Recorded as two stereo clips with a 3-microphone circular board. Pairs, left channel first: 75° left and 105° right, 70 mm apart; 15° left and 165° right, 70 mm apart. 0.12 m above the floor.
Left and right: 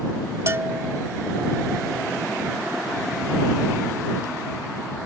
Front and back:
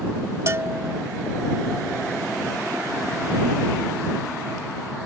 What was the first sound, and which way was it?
A bell, 135° right.